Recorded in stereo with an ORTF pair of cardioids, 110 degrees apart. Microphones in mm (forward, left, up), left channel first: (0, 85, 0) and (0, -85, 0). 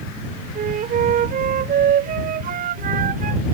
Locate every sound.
0.6 s a flute: 60° right